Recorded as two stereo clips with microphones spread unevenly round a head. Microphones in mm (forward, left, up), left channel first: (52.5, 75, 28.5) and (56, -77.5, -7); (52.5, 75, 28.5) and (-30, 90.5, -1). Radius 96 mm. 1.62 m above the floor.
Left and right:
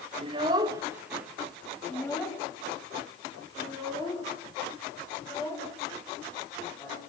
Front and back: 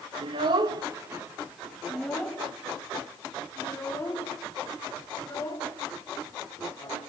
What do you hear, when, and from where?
0.2 s a child speaking: 155° right, 1.1 m; by 7.0 s 35° left, 4.5 m